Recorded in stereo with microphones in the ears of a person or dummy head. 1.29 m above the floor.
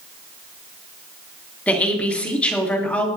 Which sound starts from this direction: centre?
A woman speaking, at 1.7 s.